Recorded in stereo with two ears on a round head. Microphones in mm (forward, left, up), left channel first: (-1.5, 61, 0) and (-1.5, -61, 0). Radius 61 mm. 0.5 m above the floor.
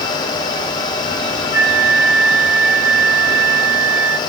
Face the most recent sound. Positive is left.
turn(degrees=-15)  # may be behind; listen again after turning